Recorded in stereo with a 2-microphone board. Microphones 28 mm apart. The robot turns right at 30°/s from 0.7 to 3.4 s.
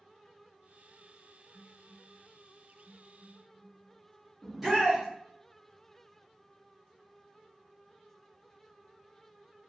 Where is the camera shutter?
No camera shutter in this recording.